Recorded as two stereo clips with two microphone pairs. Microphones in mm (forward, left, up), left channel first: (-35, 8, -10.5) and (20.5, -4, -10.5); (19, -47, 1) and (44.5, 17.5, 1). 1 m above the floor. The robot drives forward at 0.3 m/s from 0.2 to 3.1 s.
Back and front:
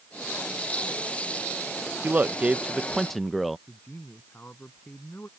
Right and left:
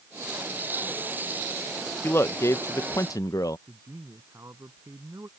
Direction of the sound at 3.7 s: 110° left.